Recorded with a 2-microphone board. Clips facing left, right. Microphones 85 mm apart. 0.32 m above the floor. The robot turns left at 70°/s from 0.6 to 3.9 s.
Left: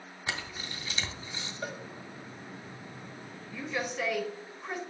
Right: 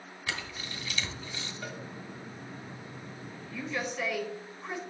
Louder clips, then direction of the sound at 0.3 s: Left 1 dB; 25° left (ahead or behind).